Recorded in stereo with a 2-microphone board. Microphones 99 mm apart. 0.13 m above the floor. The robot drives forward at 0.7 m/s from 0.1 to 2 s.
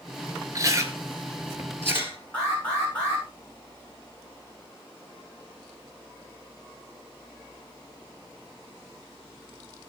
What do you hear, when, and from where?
0.6 s chewing: 30° right (ahead or behind), 1.9 m; by 2.2 s 25° right (ahead or behind), 2.5 m
2.3 s an alarm: 15° left (ahead or behind), 9.5 m